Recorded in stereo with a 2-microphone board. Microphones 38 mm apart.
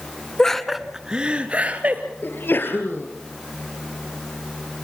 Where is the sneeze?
65° left (ahead or behind), 3.5 m.